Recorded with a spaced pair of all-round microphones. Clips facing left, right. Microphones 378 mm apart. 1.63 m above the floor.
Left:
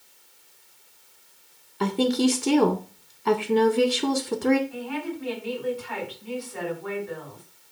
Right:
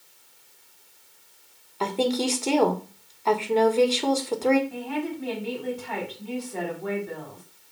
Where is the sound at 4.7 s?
60° right (ahead or behind), 5 m.